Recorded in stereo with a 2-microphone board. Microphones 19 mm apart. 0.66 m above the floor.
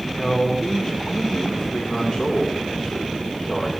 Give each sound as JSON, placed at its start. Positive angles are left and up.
{"t": 0.1, "sound": "a man speaking", "side_deg": 40, "distance_m": 1.9}